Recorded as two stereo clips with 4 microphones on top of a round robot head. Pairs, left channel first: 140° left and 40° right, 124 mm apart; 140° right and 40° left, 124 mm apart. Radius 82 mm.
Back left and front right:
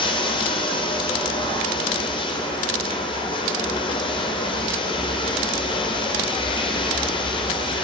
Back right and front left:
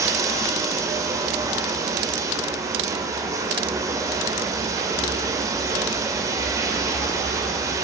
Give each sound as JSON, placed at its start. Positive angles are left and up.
{"t": 0.0, "sound": "running water", "azimuth_deg": 100, "distance_m": 1.8}